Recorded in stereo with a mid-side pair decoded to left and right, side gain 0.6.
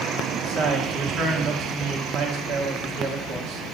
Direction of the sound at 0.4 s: 60° right.